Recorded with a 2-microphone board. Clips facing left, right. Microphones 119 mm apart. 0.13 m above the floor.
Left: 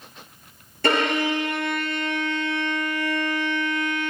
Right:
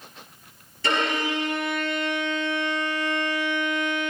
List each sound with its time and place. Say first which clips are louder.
0.8 s a violin: left 4 dB; 55° left (ahead or behind), 1.6 m